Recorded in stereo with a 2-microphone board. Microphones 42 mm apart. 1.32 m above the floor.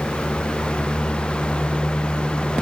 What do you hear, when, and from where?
Only background noise.